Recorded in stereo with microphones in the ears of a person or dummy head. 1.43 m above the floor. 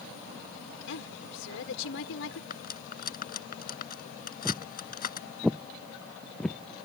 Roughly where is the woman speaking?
Left.